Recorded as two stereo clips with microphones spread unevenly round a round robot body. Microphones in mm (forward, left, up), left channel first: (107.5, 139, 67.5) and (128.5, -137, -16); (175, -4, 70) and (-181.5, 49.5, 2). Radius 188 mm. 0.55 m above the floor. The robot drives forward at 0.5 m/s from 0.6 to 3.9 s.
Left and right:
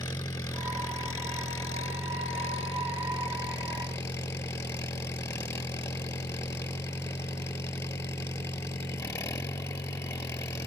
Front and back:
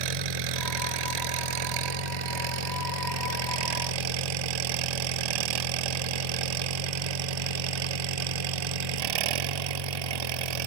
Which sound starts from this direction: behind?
An engine running, at 0.0 s.